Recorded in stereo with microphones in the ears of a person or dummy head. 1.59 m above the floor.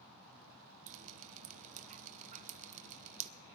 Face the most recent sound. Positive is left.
turn(degrees=-40)  # may be behind; listen again after turning